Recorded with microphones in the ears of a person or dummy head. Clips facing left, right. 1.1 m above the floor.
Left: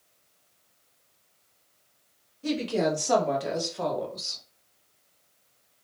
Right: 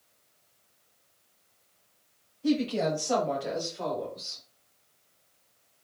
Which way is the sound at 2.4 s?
60° left (ahead or behind).